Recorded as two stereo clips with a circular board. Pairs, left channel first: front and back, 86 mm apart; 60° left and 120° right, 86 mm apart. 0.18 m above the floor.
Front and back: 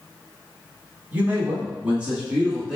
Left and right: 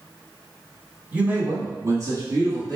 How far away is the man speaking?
About 1.0 m.